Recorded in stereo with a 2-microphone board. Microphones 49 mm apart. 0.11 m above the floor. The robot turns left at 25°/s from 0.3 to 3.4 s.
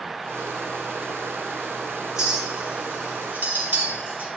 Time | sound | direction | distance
2.2 | a clink | 10° right (ahead or behind) | 1.6 m